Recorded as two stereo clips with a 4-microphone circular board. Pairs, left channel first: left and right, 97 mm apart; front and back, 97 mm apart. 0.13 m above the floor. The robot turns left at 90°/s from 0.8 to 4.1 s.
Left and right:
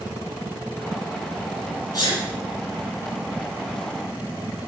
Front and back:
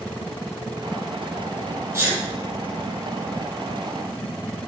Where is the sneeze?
125° left, 2.5 m; by 2.2 s 105° left, 2.5 m.